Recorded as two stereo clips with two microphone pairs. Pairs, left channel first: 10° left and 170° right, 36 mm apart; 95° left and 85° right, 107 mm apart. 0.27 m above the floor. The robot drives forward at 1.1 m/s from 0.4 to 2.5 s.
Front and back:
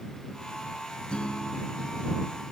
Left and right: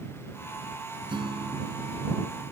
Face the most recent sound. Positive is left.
turn(degrees=-80)